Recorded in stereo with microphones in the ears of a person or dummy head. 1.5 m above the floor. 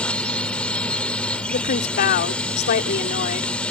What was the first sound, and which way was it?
A drone, 10° left (ahead or behind).